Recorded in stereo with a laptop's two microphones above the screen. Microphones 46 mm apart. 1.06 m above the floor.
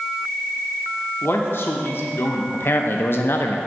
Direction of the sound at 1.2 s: 55° left (ahead or behind).